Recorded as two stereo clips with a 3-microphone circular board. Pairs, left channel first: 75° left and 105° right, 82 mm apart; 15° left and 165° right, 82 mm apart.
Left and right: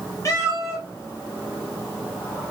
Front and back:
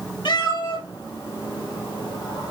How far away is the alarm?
I don't hear an alarm.